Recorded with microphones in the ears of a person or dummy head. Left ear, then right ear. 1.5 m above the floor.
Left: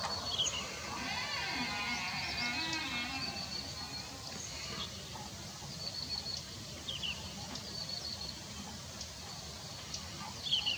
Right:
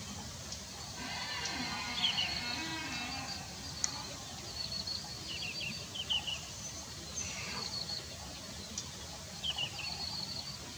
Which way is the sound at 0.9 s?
25° left (ahead or behind).